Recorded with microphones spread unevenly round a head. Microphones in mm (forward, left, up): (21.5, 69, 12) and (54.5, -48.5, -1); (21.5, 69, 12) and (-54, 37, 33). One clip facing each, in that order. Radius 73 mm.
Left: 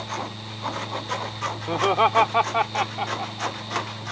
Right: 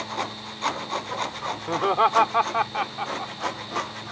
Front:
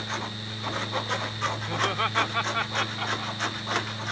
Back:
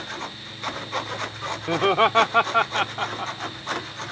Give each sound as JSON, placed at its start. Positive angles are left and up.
{"t": 1.7, "sound": "laughter", "azimuth_deg": -170}